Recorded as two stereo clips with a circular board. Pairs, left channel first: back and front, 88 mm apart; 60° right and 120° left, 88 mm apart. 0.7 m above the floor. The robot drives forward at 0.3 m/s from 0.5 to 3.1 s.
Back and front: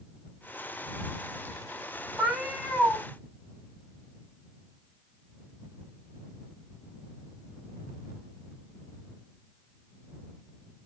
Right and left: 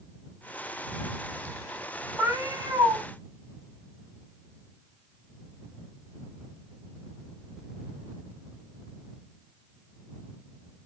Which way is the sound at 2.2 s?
75° left.